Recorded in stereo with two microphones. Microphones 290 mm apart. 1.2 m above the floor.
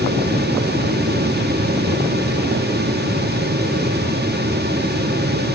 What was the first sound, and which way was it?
Only background noise.